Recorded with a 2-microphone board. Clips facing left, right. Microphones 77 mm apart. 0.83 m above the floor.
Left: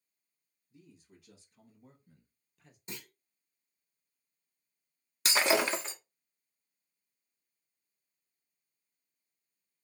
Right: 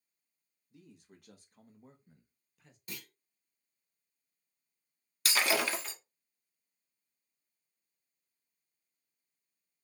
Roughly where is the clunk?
Left.